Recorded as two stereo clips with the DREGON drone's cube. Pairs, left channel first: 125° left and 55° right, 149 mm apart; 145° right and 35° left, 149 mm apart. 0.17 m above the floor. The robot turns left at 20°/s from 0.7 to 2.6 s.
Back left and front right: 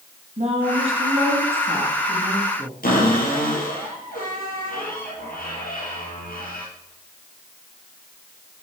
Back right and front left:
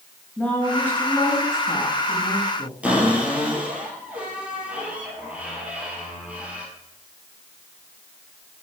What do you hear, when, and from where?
0.4 s a woman speaking: 70° right, 2.0 m; by 2.7 s 110° right, 2.0 m
2.8 s a cupboard door: 115° left, 3 m